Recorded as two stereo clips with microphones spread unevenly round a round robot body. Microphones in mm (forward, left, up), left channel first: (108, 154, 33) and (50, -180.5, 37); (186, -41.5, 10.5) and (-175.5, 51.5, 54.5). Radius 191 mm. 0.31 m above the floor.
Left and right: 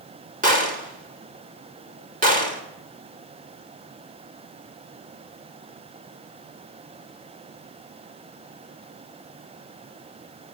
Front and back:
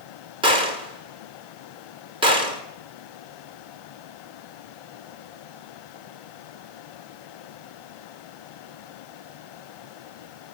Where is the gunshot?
120° right, 1.5 m.